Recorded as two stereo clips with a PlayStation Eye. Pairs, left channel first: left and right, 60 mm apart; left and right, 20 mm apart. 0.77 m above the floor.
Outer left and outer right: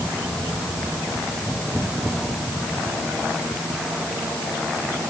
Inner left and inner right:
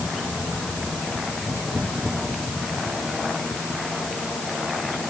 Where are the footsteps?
No footsteps in this recording.